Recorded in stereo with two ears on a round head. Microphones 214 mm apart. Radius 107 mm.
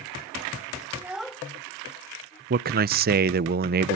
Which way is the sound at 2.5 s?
40° right (ahead or behind).